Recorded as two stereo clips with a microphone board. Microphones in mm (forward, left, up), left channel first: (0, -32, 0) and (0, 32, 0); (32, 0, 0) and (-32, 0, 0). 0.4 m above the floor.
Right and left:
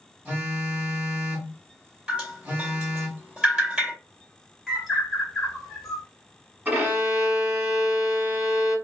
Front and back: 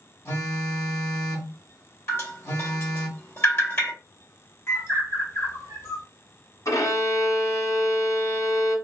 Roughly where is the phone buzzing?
Ahead left.